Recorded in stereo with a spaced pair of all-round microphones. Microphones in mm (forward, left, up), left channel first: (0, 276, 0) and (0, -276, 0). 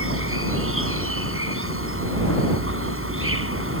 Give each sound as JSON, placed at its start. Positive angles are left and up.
{"t": 0.0, "sound": "an insect", "side_deg": -25}